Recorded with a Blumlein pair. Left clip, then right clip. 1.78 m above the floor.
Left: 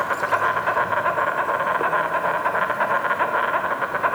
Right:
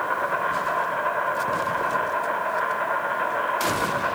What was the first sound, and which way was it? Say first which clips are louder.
An insect: left 3 dB; 20° left.